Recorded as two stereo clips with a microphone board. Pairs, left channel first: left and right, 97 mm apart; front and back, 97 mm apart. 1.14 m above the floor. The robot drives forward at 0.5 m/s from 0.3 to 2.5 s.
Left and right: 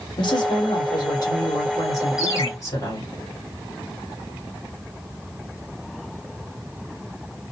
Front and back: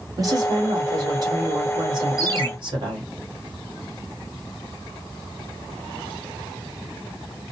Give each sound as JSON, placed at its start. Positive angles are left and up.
{"t": 0.2, "sound": "a woman speaking", "azimuth_deg": 130, "distance_m": 2.5}
{"t": 2.2, "sound": "a ringtone", "azimuth_deg": 140, "distance_m": 3.0}